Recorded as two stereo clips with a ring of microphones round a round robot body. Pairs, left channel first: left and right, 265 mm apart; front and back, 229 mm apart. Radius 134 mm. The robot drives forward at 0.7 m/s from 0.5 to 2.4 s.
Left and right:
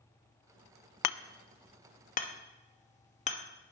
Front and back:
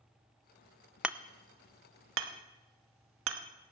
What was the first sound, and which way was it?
Hammering, 95° left.